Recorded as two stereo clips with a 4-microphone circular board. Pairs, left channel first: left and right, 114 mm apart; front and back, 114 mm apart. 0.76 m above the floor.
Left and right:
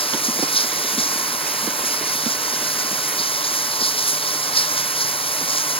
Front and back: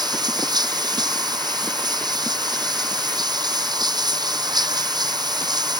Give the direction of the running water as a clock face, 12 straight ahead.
8 o'clock.